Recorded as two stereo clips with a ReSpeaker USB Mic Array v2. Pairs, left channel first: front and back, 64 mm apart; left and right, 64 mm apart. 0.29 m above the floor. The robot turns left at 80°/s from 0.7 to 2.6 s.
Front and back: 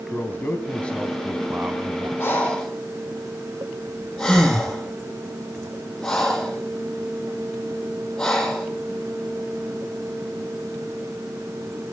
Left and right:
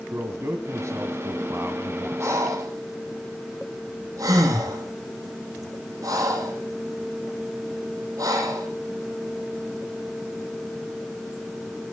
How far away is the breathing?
About 5.5 m.